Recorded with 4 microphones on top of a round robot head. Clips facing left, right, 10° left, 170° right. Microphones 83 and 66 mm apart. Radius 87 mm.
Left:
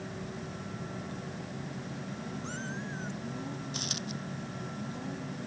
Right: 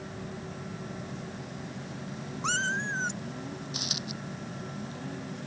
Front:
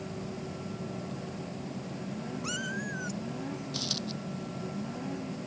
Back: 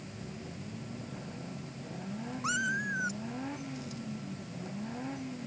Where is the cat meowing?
105° right.